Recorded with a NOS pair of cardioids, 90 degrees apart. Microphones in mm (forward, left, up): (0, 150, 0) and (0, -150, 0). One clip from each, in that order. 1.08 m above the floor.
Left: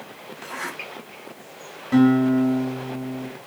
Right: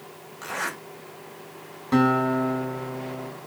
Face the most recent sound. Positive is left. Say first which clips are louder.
# left 2 dB
turn(degrees=-15)